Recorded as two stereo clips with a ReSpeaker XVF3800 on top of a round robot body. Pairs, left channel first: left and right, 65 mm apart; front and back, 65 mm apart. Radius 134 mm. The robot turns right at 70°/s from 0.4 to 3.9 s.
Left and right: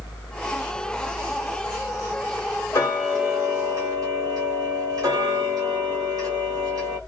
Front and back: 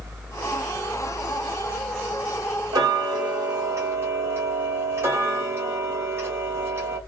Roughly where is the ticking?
Behind left.